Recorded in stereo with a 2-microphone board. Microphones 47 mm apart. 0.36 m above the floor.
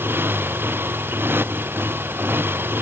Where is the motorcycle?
50° right (ahead or behind).